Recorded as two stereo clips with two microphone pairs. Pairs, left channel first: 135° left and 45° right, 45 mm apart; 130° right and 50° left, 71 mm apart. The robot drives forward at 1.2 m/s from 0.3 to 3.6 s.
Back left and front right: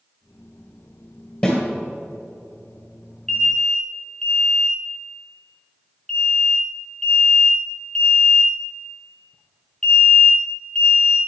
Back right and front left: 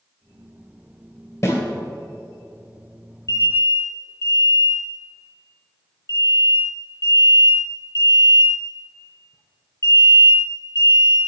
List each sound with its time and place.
1.4 s a snare drum: 170° right, 2.5 m
3.3 s an alarm: 150° right, 2.5 m; by 11.2 s 155° right, 2.5 m